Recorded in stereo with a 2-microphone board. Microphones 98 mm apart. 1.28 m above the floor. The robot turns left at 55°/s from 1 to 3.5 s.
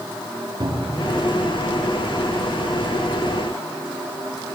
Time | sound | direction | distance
0.6 | a cupboard door | 40° right (ahead or behind) | 6.5 m